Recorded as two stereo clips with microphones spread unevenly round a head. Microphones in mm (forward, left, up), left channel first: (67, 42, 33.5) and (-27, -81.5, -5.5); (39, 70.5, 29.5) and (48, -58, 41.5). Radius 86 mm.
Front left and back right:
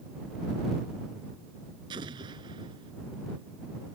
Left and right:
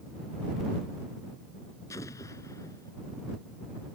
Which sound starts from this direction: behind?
An explosion, at 1.9 s.